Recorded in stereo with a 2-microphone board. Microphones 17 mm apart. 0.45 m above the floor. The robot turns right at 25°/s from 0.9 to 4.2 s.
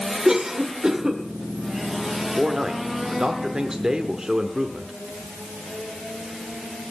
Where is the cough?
45° right (ahead or behind), 1.6 m.